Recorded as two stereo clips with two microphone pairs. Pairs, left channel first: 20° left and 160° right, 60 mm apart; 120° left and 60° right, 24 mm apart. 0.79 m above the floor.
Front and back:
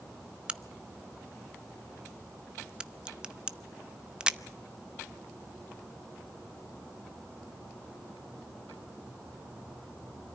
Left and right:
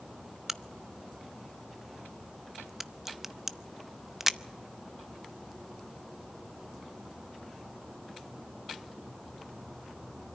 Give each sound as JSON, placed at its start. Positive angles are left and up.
{"t": 0.5, "sound": "a crack", "azimuth_deg": -110, "distance_m": 0.6}